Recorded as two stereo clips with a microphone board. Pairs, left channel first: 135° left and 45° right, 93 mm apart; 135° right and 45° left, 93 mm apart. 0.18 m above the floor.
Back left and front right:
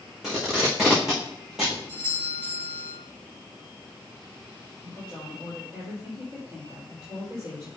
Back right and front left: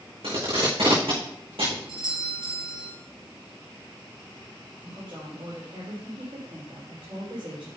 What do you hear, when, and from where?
0.2 s tape being pulled: 40° left, 5 m
1.9 s a doorbell: 60° left, 4.5 m
4.8 s a woman speaking: 15° left, 4 m